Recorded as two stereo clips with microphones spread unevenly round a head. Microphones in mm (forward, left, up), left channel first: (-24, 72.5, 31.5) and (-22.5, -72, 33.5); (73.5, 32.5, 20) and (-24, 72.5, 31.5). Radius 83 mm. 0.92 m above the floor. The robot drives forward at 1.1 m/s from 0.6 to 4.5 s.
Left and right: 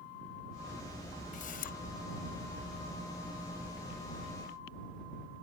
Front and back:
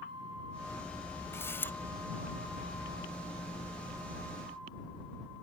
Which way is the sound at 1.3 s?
45° left.